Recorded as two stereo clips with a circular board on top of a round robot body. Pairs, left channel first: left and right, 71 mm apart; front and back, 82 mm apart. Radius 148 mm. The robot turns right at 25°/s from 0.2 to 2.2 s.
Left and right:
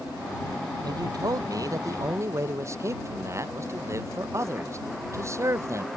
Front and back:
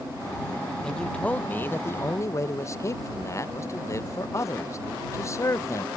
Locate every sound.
0.8 s a man speaking: 80° right; by 5.9 s 45° right